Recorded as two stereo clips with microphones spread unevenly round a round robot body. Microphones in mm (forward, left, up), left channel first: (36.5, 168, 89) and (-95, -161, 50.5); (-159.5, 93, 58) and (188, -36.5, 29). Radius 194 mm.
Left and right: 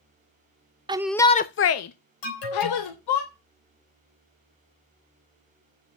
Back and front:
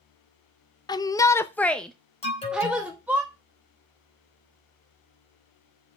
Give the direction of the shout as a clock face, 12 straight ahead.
4 o'clock.